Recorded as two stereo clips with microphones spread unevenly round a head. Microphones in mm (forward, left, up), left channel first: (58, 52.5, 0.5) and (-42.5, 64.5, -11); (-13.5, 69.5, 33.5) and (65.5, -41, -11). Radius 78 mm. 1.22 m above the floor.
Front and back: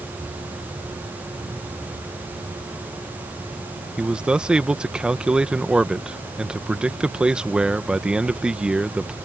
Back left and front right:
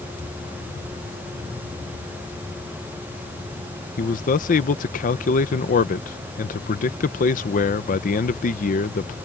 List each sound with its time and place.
4.0 s a man speaking: 95° left